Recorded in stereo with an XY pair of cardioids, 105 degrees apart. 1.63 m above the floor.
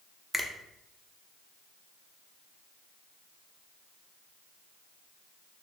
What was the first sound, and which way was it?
A finger snap, 5° left.